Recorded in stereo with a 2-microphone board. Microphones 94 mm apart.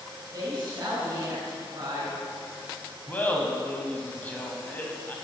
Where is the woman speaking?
45° right (ahead or behind), 2 m.